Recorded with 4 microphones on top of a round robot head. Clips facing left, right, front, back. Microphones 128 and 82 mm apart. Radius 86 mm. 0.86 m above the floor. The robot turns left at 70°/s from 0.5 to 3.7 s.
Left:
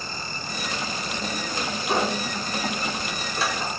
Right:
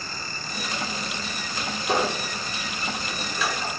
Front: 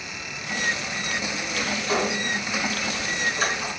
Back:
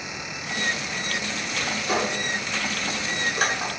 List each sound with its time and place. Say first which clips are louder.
1.9 s a squeak: even, even; 105° right, 1.2 m; by 3.7 s 130° left, 1.2 m